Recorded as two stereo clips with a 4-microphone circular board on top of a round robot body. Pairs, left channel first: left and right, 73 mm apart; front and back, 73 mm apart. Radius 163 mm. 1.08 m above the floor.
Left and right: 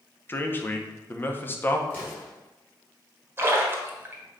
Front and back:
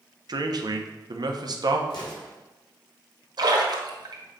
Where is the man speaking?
155° left, 1.0 m.